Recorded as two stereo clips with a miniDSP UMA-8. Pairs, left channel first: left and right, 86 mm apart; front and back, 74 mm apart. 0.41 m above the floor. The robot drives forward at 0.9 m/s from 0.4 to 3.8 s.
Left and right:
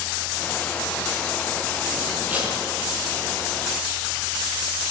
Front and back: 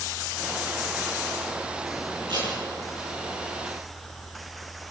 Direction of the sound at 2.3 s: 160° right.